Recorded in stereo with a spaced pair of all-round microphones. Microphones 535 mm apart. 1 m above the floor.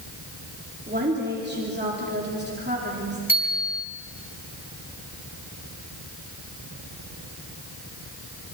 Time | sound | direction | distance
0.9 | a woman speaking | 20° right (ahead or behind) | 3 m
3.3 | a bicycle bell | 60° left (ahead or behind) | 6 m